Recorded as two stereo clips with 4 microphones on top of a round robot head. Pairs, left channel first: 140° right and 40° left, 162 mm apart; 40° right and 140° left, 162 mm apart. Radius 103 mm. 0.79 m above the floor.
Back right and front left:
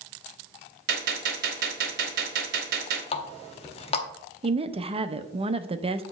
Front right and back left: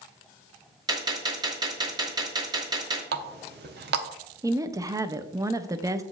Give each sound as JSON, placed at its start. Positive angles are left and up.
{"t": 0.9, "sound": "a gunshot", "azimuth_deg": 75, "distance_m": 1.0}
{"t": 3.1, "sound": "a running tap", "azimuth_deg": 165, "distance_m": 0.8}
{"t": 4.4, "sound": "a woman speaking", "azimuth_deg": 75, "distance_m": 0.7}